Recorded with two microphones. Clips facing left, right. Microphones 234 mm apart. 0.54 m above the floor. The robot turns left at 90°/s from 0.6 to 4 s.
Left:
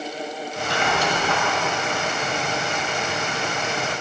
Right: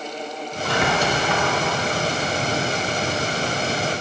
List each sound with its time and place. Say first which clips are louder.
0.7 s a squeak: right 3 dB; 115° right, 1.5 m; by 1.4 s 175° left, 1.5 m